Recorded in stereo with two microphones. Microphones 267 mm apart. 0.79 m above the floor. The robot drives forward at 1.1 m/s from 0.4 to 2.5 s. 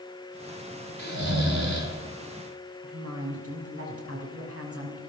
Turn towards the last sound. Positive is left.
turn(degrees=-60)  # may be behind; listen again after turning